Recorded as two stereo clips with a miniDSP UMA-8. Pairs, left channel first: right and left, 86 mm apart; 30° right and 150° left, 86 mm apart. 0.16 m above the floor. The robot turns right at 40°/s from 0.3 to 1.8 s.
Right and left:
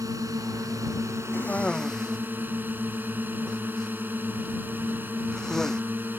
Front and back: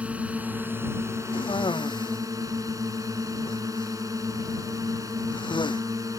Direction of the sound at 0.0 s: 85° left.